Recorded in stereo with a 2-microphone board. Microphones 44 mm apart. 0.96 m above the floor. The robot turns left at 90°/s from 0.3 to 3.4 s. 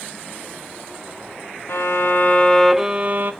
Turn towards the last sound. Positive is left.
turn(degrees=-65)